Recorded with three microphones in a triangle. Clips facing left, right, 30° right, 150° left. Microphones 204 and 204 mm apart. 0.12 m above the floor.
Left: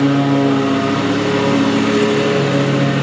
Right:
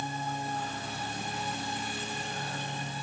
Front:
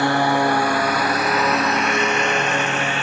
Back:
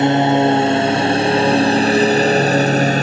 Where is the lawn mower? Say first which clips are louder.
Left 25 dB, back 6 dB; 80° left; by 3.0 s 100° left.